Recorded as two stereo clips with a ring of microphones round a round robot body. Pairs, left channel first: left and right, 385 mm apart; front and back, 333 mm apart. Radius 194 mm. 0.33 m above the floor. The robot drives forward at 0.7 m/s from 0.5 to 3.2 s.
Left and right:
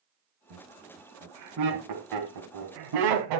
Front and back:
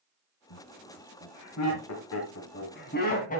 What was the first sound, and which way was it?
Laughter, 40° right.